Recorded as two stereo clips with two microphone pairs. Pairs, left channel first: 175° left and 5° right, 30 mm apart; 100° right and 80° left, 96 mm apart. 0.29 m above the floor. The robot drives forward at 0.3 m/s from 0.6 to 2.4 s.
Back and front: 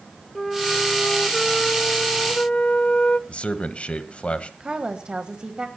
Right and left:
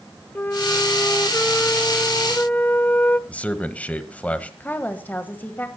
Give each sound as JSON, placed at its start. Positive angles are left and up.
{"t": 0.3, "sound": "a flute", "azimuth_deg": -100, "distance_m": 0.6}
{"t": 3.3, "sound": "a man speaking", "azimuth_deg": -165, "distance_m": 1.4}
{"t": 4.6, "sound": "a woman speaking", "azimuth_deg": -40, "distance_m": 1.3}